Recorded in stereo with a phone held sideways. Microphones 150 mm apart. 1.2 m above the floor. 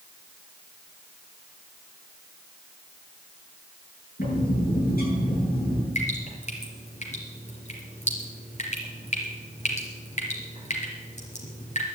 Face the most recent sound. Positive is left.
turn(degrees=50)  # may be behind; listen again after turning